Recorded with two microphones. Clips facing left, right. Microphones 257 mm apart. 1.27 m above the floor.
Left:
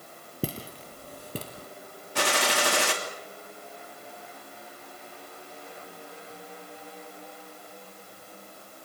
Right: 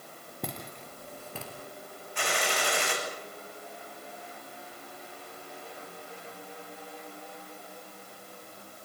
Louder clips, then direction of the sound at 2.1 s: Left 4 dB; 80° left.